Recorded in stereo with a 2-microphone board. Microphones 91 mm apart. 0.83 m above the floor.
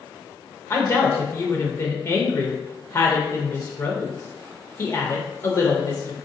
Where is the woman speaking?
30° left (ahead or behind), 0.7 m.